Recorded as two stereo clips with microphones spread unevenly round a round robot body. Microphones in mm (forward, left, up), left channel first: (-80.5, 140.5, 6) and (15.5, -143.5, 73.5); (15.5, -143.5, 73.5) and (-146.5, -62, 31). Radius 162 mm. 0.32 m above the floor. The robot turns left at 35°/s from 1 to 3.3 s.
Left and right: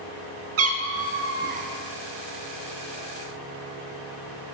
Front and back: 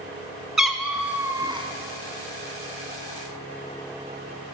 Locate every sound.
0.6 s a cat meowing: 120° right, 0.9 m; by 1.7 s 145° right, 0.9 m